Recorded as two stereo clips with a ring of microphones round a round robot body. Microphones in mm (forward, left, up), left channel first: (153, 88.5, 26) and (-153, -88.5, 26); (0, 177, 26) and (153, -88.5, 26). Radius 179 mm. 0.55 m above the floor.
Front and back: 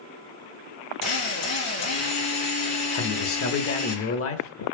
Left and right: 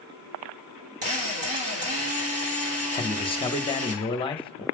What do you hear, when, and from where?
1.0 s a drill: 15° right, 4 m
3.0 s a man speaking: 55° left, 1.1 m